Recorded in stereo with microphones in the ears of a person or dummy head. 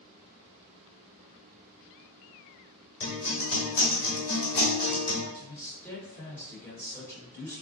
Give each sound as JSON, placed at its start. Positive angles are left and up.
{"t": 3.0, "sound": "a guitar", "side_deg": 55, "distance_m": 1.3}
{"t": 5.3, "sound": "a man speaking", "side_deg": 15, "distance_m": 1.2}